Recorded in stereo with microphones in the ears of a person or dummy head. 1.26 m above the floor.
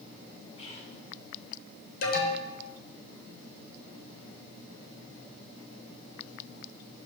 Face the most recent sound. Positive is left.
turn(degrees=50)  # may be behind; listen again after turning